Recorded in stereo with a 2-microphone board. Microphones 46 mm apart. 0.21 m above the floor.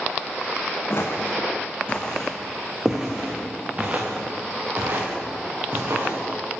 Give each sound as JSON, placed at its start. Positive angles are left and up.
{"t": 0.9, "sound": "footsteps", "side_deg": 50, "distance_m": 1.2}